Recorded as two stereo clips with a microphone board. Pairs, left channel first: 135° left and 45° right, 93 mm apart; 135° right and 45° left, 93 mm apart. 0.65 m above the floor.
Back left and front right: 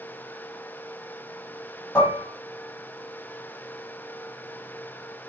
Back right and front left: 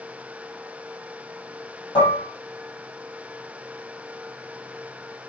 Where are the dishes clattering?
150° right, 2.5 m.